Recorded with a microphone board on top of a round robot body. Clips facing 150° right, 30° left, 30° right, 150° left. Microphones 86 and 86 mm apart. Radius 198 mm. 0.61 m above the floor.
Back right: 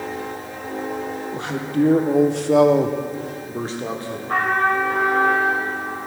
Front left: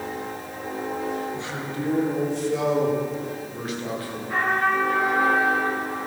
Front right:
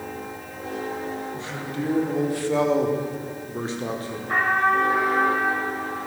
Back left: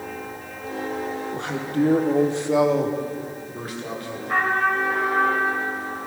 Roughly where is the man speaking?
Behind.